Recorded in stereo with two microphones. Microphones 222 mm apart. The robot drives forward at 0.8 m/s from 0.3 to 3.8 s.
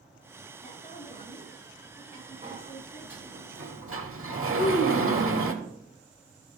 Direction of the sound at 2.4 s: 35° right (ahead or behind).